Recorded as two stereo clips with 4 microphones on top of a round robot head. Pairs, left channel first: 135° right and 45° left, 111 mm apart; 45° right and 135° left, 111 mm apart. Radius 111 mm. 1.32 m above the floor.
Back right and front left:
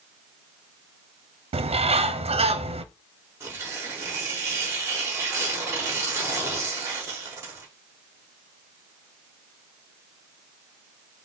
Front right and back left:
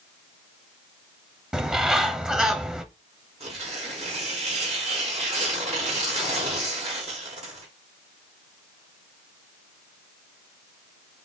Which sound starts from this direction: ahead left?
A bird, at 1.5 s.